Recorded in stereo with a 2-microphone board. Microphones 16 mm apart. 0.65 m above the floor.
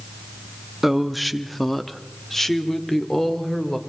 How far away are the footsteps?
I don't hear footsteps.